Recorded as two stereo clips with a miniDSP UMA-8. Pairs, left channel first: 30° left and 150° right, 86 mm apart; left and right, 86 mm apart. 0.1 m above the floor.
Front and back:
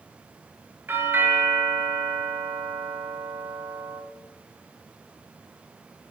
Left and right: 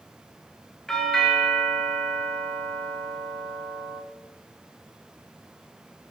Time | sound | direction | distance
0.9 | a doorbell | 170° left | 1.7 m